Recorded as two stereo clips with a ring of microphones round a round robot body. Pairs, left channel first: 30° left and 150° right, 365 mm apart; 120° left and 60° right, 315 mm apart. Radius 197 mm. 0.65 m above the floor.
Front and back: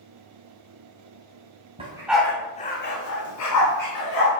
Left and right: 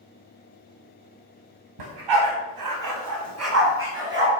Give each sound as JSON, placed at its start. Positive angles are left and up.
{"t": 1.8, "sound": "a dog barking", "azimuth_deg": -75, "distance_m": 2.0}